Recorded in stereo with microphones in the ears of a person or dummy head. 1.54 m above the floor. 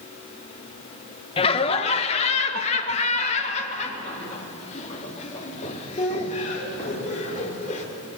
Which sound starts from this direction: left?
Laughter, at 1.4 s.